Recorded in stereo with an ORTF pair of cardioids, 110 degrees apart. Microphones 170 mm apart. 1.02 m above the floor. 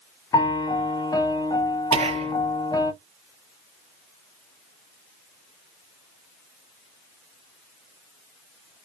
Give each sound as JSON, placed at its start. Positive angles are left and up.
{"t": 0.3, "sound": "a piano", "azimuth_deg": 20, "distance_m": 0.7}
{"t": 1.9, "sound": "whispering", "azimuth_deg": -40, "distance_m": 0.6}